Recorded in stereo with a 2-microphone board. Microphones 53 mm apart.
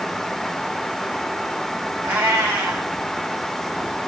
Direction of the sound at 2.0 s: 35° right (ahead or behind).